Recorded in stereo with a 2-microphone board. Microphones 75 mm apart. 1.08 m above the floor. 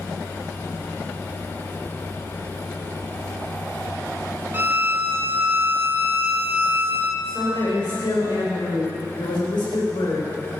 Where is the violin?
30° right (ahead or behind), 0.8 m.